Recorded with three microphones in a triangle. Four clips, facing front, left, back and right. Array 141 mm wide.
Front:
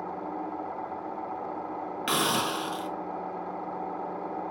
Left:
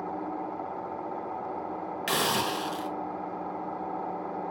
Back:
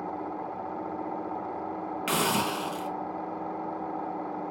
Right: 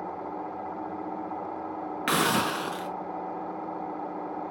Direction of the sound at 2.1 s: 80° right.